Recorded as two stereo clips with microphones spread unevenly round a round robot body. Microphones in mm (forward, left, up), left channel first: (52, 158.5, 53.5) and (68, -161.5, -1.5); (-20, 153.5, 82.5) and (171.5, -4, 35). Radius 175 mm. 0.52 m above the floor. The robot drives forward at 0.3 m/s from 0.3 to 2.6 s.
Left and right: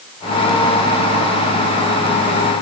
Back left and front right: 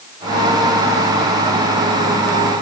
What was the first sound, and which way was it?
Only background noise.